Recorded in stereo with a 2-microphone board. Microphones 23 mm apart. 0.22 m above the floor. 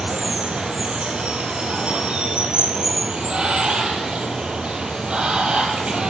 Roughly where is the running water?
Right.